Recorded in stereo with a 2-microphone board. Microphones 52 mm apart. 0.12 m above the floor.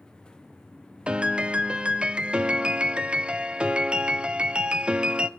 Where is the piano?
20° right (ahead or behind), 0.7 m.